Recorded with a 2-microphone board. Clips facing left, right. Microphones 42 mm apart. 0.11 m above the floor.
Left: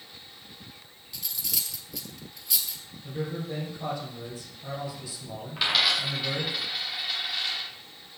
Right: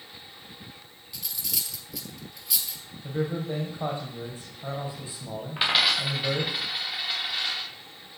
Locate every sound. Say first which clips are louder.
1.1 s cutlery clinking: even; centre (ahead or behind), 1.3 m
3.0 s a man speaking: right 4 dB; 35° right (ahead or behind), 4 m
5.6 s a dropped coin: right 1 dB; 20° right (ahead or behind), 3 m